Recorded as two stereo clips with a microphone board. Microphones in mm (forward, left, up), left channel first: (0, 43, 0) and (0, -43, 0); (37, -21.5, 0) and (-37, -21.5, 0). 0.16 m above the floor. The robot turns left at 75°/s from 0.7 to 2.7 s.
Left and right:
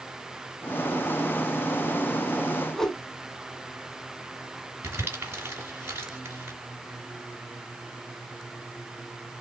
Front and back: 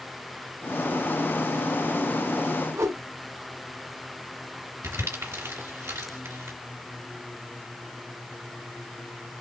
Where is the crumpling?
145° right, 2.5 m.